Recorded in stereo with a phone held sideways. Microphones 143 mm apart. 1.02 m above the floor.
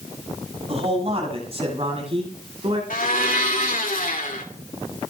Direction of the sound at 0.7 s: 45° right (ahead or behind).